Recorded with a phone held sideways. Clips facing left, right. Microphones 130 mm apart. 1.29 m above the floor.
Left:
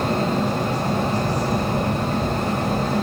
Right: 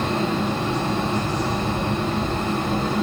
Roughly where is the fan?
Left.